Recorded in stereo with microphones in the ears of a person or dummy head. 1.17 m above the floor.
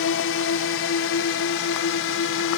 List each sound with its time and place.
0.0 s a drone: 65° left (ahead or behind); by 2.6 s 70° left (ahead or behind)